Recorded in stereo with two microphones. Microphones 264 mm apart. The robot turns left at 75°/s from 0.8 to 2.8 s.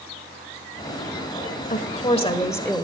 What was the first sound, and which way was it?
A woman speaking, 85° left.